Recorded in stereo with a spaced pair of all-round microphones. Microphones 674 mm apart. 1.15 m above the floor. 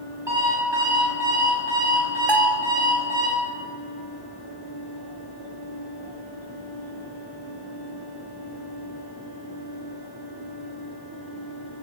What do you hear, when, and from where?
0.3 s an alarm clock: 40° right (ahead or behind), 5.5 m
2.3 s a bell: 5° left (ahead or behind), 0.7 m